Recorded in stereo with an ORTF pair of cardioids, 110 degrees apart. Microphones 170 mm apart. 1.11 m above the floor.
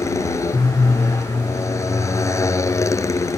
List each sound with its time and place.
0.0 s a motorcycle: 15° left